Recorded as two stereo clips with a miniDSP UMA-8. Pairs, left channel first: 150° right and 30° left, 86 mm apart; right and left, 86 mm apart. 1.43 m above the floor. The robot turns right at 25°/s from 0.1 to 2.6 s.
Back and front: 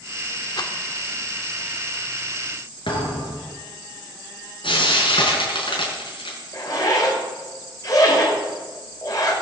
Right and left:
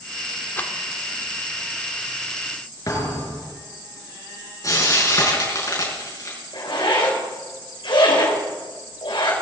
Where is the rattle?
155° right, 1.4 m; by 0.7 s 150° right, 1.4 m.